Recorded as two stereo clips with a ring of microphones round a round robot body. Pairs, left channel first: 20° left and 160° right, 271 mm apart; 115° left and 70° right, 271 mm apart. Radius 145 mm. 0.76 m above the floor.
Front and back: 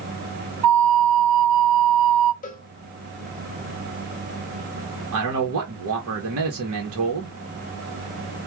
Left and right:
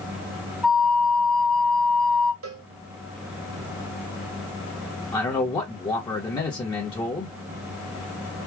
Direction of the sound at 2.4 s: 35° right.